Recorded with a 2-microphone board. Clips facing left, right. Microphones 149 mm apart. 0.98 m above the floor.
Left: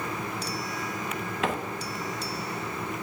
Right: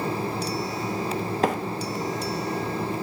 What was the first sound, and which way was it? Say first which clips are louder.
A microwave: right 5 dB; 40° right (ahead or behind).